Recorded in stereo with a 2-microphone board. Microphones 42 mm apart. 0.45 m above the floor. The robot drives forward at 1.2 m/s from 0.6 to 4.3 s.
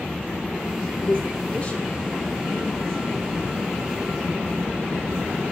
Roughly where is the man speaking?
Left.